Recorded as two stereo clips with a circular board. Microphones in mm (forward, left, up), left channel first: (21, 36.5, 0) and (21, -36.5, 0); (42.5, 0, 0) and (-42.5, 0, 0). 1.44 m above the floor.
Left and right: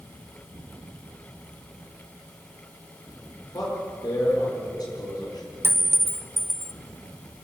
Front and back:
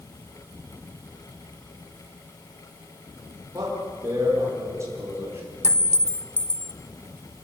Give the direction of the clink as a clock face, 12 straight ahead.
1 o'clock.